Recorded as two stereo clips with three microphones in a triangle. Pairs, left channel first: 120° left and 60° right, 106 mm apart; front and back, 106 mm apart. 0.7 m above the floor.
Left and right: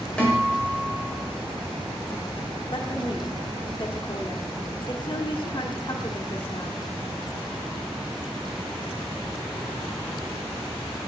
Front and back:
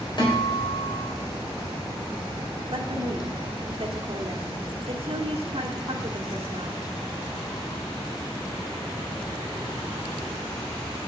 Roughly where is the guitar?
Ahead left.